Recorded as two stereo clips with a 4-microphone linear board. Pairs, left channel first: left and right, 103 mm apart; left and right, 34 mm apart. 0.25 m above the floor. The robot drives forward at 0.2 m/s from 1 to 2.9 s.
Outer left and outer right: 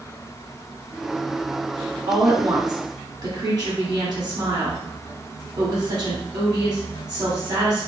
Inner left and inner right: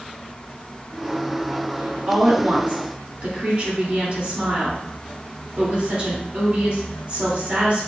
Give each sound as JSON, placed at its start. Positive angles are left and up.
{"t": 2.1, "sound": "a woman speaking", "side_deg": -45, "distance_m": 1.7}